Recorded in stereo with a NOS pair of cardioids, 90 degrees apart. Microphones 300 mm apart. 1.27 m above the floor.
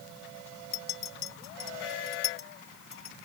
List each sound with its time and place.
0.7 s a clink: 40° left